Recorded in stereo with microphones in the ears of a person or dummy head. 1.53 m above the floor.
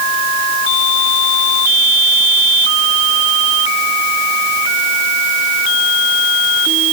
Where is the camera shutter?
I don't hear a camera shutter.